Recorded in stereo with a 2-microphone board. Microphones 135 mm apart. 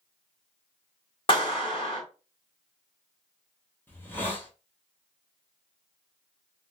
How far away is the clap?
About 1.6 m.